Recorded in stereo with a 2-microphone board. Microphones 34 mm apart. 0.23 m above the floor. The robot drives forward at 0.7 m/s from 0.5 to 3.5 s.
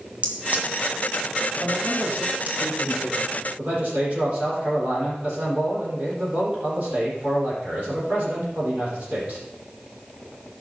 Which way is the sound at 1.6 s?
40° right (ahead or behind).